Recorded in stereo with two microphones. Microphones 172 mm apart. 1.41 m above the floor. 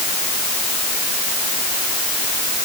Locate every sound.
Only background noise.